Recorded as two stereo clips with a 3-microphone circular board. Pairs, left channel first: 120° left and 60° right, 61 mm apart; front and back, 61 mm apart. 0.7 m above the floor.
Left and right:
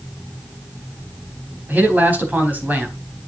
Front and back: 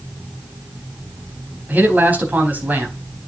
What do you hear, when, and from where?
1.7 s a man speaking: 120° right, 4 m